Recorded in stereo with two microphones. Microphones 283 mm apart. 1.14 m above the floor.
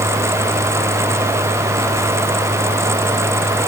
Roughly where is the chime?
I don't hear a chime.